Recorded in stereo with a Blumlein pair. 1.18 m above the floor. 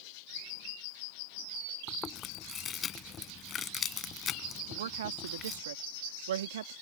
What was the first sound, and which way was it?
Chewing, 25° left.